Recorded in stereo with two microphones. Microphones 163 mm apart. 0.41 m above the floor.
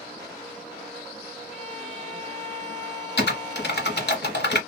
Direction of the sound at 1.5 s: 45° left (ahead or behind).